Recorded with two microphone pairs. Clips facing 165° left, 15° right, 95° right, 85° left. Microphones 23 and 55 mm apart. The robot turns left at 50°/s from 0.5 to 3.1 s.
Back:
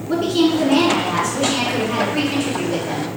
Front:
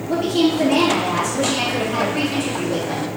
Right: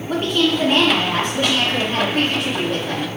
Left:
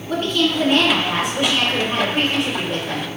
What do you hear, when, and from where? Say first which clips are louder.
0.1 s a woman speaking: back 1 dB, right 1 dB; 170° right, 1.4 m; by 3.1 s 60° left, 1.4 m